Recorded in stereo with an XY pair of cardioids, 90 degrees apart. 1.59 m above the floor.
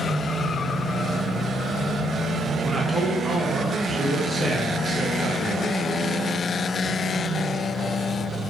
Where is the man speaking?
25° right, 1.7 m.